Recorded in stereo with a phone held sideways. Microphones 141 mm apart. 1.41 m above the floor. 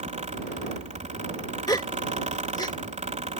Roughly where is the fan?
Right.